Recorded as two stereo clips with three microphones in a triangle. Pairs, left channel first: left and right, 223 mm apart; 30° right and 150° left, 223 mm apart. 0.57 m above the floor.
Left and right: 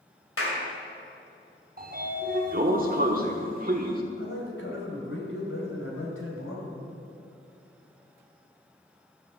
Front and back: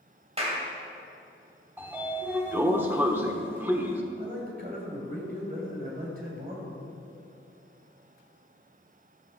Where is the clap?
90° left, 2.5 m.